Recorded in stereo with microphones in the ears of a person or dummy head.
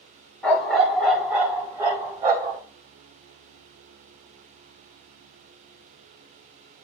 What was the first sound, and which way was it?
A dog barking, 5° left (ahead or behind).